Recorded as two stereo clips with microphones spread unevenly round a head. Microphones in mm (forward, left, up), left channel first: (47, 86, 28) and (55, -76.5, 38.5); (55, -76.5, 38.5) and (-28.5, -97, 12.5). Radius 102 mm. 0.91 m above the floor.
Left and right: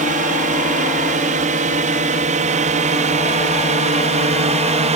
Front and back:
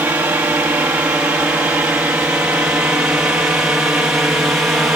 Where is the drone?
110° right; by 5.0 s 100° right.